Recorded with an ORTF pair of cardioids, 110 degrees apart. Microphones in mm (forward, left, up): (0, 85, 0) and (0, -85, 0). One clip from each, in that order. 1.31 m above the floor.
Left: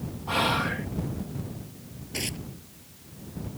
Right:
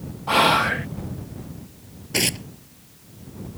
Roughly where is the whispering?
Ahead right.